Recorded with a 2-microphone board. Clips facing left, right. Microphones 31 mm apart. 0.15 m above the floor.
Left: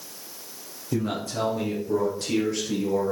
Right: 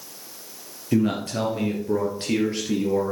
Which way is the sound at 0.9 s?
55° right (ahead or behind).